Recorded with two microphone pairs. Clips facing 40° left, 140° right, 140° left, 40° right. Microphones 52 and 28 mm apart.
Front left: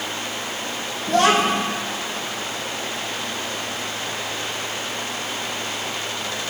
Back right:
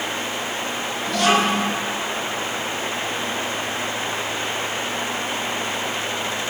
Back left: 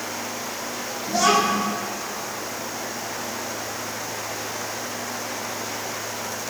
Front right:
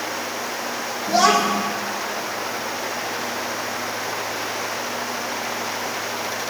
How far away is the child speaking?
About 2 m.